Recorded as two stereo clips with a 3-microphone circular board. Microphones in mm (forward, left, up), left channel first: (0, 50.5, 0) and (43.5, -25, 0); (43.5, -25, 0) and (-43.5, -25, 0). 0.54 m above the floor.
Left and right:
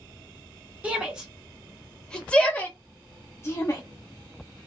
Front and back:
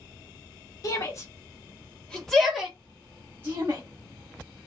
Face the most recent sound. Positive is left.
turn(degrees=150)